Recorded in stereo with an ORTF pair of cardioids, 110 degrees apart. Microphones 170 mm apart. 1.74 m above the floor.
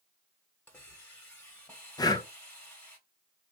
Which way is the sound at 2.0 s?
20° left.